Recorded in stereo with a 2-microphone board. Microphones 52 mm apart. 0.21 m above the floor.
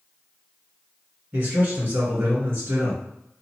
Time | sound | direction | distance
1.3 | a man speaking | 35° right (ahead or behind) | 1.6 m